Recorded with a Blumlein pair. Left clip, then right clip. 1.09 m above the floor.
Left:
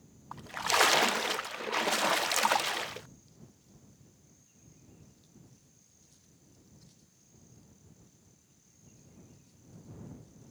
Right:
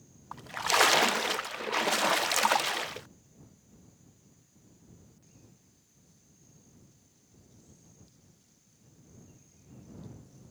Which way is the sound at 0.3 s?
5° right.